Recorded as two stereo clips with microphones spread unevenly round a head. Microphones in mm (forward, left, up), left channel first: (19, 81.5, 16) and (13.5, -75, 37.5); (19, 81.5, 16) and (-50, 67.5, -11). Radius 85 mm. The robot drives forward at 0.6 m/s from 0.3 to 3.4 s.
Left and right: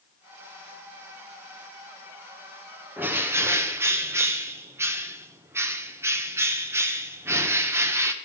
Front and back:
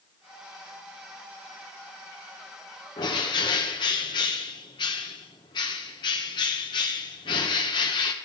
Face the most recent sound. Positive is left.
turn(degrees=-20)